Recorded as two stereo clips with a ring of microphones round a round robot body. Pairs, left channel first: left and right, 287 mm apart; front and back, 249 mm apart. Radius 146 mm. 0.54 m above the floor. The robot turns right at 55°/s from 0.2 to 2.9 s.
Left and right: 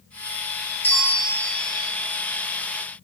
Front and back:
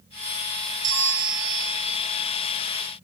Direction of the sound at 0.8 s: 175° left.